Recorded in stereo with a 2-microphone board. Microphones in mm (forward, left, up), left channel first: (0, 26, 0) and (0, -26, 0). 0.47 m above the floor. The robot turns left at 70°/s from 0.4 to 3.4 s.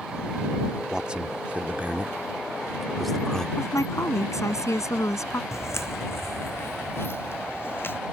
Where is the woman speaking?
75° left (ahead or behind).